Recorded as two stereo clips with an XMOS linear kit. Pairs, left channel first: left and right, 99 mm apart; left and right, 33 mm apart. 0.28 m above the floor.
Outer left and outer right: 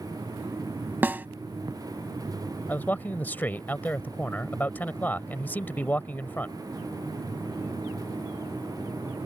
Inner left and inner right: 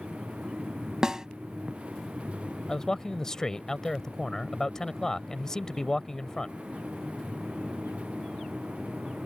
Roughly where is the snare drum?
Centre.